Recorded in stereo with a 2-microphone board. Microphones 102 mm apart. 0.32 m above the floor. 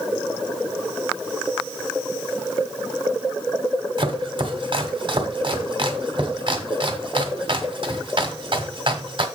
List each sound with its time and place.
4.0 s chopping: 55° right (ahead or behind), 1.3 m